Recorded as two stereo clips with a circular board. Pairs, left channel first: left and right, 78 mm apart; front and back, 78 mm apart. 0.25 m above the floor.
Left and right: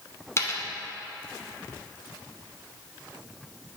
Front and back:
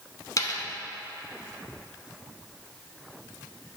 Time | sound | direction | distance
0.4 | a dropped coin | 35° left | 0.8 m